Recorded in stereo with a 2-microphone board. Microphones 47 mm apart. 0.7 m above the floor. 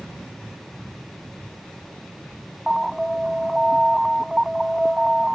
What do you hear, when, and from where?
2.7 s an alarm: 5° right (ahead or behind)